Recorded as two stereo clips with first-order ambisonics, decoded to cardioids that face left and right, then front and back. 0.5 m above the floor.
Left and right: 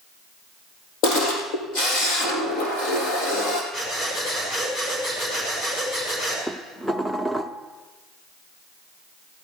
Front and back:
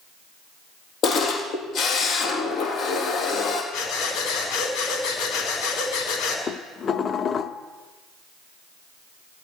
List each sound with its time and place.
1.0 s a camera shutter: 55° left, 3.5 m
3.7 s breathing: 25° left, 5 m
6.5 s dishes clattering: 10° left, 0.6 m